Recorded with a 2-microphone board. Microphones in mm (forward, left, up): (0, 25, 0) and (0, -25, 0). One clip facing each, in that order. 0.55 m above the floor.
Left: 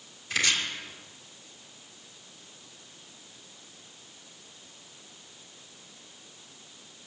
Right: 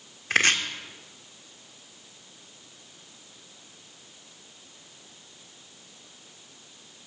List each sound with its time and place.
0.3 s chopping: 50° right (ahead or behind), 1.3 m